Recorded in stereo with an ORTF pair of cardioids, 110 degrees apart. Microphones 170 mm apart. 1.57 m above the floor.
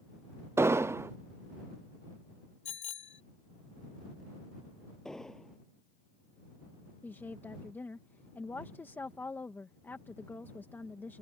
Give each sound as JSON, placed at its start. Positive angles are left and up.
{"t": 0.6, "sound": "an explosion", "azimuth_deg": -15}
{"t": 2.6, "sound": "a bicycle bell", "azimuth_deg": 40}
{"t": 5.0, "sound": "an explosion", "azimuth_deg": 5}
{"t": 7.0, "sound": "a woman speaking", "azimuth_deg": 10}